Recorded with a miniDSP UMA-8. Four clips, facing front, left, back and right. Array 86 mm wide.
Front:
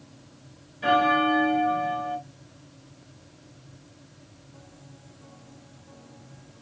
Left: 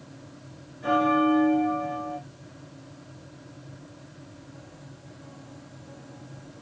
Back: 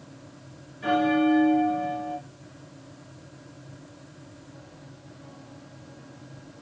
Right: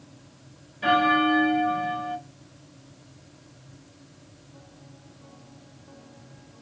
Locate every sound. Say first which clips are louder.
0.8 s a bell: right 1 dB, front 1 dB; 65° right, 2 m